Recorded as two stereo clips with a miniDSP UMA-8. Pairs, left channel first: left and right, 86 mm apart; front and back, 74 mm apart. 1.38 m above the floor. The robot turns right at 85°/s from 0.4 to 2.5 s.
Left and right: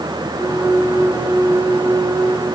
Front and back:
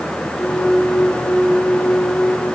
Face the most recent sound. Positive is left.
No sound to turn to.